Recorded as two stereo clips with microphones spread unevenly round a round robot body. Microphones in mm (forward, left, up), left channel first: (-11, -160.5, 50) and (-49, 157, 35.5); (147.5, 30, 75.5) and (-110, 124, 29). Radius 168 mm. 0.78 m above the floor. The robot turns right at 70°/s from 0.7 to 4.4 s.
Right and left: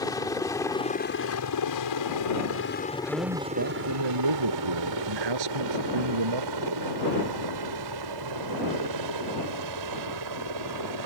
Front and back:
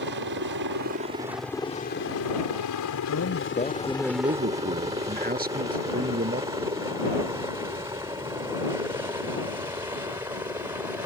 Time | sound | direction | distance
0.0 | a helicopter | 160° right | ?
3.0 | a man speaking | 10° left | ?